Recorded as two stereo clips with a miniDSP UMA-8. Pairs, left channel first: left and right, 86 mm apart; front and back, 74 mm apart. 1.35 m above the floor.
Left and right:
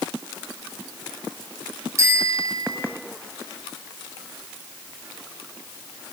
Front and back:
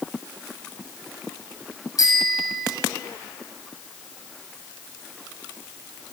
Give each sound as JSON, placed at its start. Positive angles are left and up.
{"t": 2.0, "sound": "a bicycle bell", "azimuth_deg": -35, "distance_m": 6.5}